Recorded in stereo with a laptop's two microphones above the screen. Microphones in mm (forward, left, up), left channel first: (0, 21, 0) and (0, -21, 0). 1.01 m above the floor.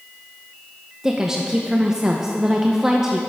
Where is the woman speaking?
15° right (ahead or behind), 0.5 m.